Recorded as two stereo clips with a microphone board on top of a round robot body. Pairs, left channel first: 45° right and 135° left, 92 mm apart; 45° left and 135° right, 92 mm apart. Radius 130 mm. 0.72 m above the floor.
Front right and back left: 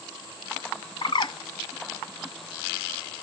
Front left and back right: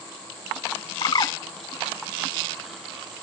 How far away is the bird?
About 0.5 m.